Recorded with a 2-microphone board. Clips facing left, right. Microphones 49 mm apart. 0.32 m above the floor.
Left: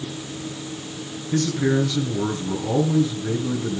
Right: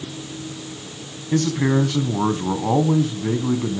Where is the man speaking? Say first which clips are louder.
Right 2 dB; 60° right (ahead or behind), 2.5 m.